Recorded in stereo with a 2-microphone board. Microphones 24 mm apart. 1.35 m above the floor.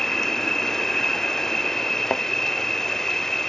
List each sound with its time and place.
0.0 s an insect: 20° left (ahead or behind)
2.1 s a thud: 50° left (ahead or behind)